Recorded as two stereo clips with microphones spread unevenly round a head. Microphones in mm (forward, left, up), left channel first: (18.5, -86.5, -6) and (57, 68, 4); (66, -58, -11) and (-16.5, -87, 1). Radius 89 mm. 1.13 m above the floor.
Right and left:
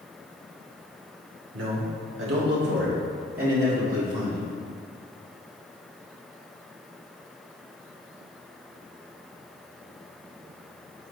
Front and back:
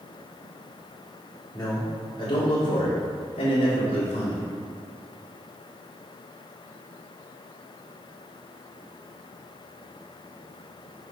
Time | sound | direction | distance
1.5 | a man speaking | 100° left | 2 m